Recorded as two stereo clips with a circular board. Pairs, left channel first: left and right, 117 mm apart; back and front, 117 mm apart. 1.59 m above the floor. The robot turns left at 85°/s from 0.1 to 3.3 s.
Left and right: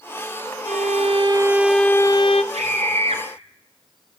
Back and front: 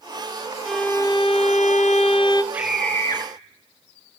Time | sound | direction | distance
0.7 | a violin | 90° right | 0.8 m
2.5 | a scream | 75° right | 1.8 m